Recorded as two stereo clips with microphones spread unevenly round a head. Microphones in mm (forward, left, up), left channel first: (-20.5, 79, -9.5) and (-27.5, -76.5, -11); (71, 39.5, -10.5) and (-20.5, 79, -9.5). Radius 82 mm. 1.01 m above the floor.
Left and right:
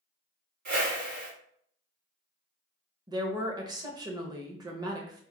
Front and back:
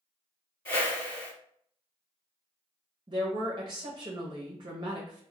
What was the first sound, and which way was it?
A whoosh, 80° right.